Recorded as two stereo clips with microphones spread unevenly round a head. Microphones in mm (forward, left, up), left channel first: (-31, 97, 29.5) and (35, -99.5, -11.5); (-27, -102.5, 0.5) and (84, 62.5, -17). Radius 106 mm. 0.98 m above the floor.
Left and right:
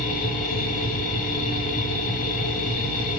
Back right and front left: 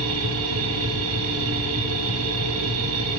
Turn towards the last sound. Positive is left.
turn(degrees=65)